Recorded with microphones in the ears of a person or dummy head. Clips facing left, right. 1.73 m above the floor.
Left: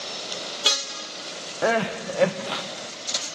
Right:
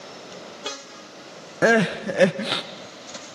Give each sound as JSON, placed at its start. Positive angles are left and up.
{"t": 1.6, "sound": "crying", "side_deg": -25, "distance_m": 0.6}